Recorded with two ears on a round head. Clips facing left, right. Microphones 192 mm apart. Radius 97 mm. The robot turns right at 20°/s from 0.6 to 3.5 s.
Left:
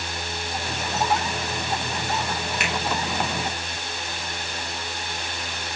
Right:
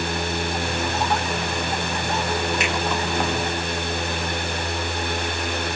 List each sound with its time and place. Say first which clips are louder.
2.6 s a finger snap: right 4 dB; 70° right (ahead or behind), 3.5 m; by 2.7 s 65° right (ahead or behind), 3.5 m